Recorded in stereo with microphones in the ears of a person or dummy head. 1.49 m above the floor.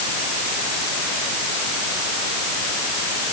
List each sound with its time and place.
Only background noise.